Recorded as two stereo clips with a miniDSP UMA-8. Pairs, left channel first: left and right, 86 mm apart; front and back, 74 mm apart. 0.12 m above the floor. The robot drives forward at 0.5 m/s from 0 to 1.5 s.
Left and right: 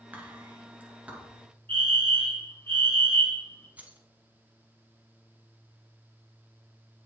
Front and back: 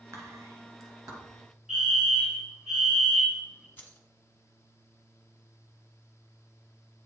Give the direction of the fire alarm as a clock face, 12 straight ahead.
8 o'clock.